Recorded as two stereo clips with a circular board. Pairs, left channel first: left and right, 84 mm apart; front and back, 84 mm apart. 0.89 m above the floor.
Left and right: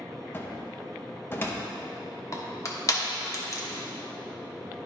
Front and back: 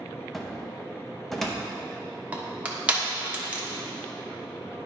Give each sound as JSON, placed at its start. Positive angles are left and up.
{"t": 0.3, "sound": "a cupboard door", "azimuth_deg": 85, "distance_m": 0.8}
{"t": 2.3, "sound": "crushing", "azimuth_deg": 115, "distance_m": 1.0}